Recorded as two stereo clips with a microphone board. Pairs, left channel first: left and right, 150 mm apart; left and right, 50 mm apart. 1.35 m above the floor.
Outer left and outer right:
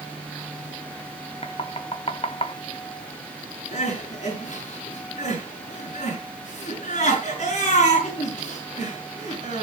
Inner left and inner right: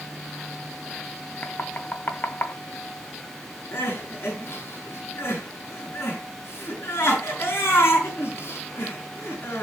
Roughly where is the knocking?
Left.